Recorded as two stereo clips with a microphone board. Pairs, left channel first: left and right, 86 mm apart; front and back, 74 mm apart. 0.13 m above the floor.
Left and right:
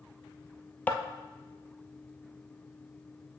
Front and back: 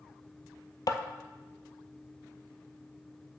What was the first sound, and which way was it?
Tapping, 25° left.